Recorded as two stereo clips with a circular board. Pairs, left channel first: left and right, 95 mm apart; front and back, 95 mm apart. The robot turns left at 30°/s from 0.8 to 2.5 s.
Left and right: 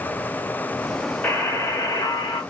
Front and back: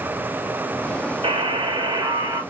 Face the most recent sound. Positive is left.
turn(degrees=125)